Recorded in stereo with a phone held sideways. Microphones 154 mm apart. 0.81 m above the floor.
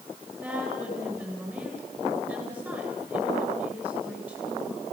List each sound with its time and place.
0.4 s a woman speaking: 10° right (ahead or behind), 9.5 m